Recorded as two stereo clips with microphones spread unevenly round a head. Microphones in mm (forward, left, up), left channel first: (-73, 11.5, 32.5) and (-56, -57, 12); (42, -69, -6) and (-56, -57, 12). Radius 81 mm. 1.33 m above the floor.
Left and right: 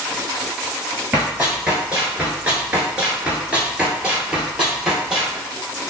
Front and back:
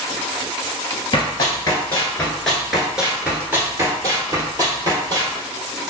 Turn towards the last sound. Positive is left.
turn(degrees=-160)